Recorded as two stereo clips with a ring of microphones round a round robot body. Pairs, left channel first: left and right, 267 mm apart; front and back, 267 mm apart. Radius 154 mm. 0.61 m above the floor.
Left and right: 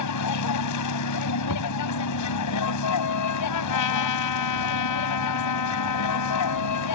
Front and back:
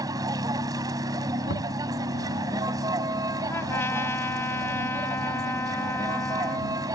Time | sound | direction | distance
0.0 | a vehicle | 100° left | ?
1.5 | knocking | 55° left | ?
3.5 | a trumpet | 80° left | ?